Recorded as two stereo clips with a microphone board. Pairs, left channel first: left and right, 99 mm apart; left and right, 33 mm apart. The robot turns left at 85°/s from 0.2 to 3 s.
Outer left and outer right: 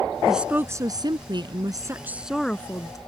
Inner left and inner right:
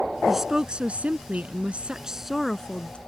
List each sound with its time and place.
0.3 s a woman speaking: straight ahead; by 3.0 s 130° left